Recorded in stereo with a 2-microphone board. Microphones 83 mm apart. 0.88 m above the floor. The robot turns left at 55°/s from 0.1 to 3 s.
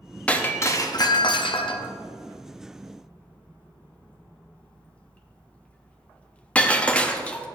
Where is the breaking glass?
15° left (ahead or behind), 0.6 m.